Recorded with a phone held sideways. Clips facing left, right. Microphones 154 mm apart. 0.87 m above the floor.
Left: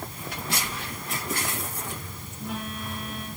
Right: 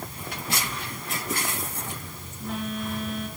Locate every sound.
0.3 s a phone buzzing: 5° left (ahead or behind), 4.5 m